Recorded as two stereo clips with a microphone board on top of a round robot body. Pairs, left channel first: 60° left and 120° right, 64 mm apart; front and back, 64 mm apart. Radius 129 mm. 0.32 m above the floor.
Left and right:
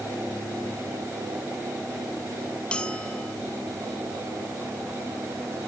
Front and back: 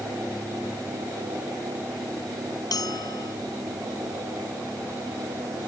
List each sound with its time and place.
2.7 s a bell: 15° right